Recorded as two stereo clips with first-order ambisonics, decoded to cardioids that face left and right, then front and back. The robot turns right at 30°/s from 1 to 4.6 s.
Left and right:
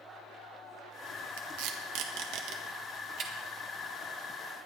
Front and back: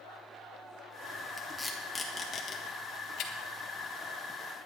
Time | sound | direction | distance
1.4 | tape being pulled | 95° right | 1.6 m